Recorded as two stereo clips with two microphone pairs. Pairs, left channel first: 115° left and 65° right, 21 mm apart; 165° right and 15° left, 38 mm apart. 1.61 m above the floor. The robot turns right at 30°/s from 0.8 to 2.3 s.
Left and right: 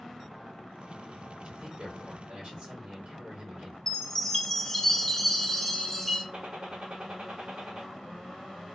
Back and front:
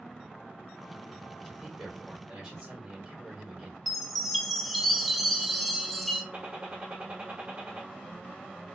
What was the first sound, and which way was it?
A man speaking, 60° right.